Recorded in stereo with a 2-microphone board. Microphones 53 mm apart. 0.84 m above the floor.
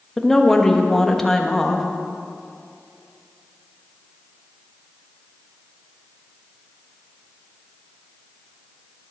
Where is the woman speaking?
10° left (ahead or behind), 1.1 m.